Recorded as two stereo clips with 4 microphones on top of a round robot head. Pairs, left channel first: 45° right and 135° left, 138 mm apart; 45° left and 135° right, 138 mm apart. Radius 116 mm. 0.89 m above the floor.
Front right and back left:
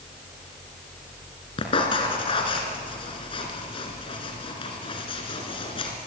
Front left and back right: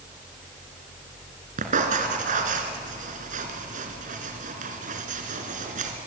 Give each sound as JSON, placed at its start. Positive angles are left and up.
{"t": 1.6, "sound": "writing", "azimuth_deg": -100, "distance_m": 2.0}